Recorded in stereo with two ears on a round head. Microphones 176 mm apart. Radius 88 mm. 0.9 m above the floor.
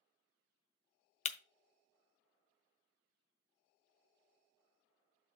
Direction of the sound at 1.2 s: 35° left (ahead or behind).